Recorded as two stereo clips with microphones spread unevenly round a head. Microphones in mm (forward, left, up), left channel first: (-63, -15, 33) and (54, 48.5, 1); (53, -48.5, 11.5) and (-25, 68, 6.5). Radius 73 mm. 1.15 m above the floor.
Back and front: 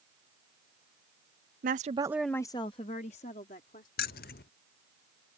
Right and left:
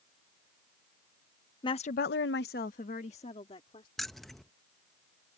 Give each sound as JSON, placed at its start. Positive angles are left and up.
{"t": 1.6, "sound": "a woman speaking", "azimuth_deg": 5}
{"t": 4.0, "sound": "keys jangling", "azimuth_deg": -145}